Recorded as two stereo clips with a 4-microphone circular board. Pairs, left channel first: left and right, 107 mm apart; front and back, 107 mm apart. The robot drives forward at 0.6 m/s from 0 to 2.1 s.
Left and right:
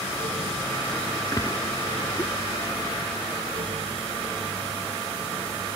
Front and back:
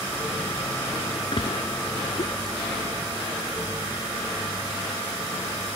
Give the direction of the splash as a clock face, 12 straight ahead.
11 o'clock.